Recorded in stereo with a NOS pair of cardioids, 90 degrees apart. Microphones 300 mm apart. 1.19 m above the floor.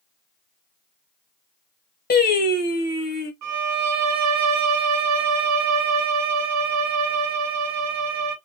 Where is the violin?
60° right, 1.1 m.